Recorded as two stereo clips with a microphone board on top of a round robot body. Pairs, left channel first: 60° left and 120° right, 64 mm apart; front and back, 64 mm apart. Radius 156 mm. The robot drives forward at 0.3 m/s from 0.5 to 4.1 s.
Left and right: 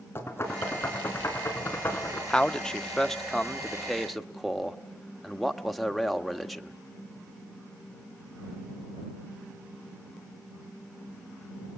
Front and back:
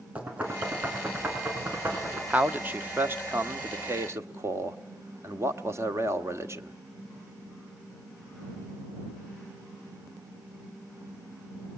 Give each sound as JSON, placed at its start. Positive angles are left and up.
{"t": 0.1, "sound": "knocking", "azimuth_deg": 110, "distance_m": 4.0}
{"t": 2.3, "sound": "a man speaking", "azimuth_deg": 125, "distance_m": 1.2}